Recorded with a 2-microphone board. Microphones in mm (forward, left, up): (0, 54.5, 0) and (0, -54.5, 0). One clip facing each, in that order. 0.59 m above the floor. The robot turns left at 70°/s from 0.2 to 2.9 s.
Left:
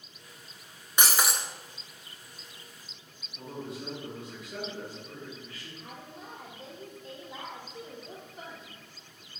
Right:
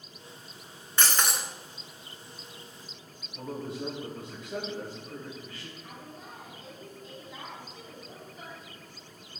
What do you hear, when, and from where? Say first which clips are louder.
1.0 s breaking glass: left 1 dB; 25° left, 0.6 m; by 1.4 s 10° right, 0.6 m
3.4 s a man speaking: right 3 dB; 35° right (ahead or behind), 2.5 m
5.8 s a woman speaking: even; 55° left (ahead or behind), 2.5 m